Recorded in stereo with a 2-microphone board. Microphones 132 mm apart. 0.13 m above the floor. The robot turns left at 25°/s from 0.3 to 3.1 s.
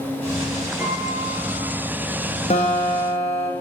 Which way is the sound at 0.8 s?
15° right (ahead or behind).